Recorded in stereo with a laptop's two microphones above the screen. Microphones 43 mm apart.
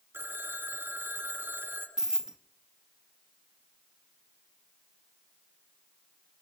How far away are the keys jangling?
About 0.9 m.